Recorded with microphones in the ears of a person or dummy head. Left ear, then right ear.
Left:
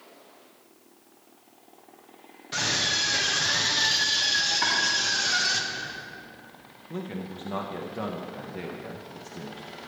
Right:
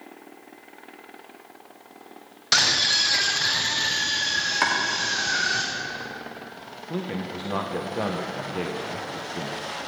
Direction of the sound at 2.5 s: 60° right (ahead or behind).